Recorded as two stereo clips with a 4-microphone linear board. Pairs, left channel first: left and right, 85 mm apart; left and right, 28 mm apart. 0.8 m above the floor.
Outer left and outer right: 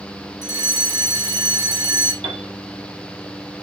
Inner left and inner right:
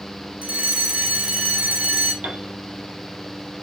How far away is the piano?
About 3 m.